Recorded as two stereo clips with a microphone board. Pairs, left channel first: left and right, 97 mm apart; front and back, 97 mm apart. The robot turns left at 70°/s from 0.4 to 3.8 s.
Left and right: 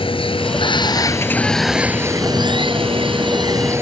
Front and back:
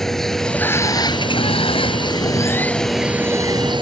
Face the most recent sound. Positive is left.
turn(degrees=-150)